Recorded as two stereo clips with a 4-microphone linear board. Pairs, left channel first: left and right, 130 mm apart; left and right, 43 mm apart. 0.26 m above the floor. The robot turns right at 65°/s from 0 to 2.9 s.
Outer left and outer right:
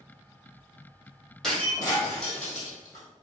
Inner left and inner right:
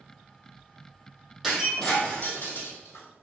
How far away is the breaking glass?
About 1.7 m.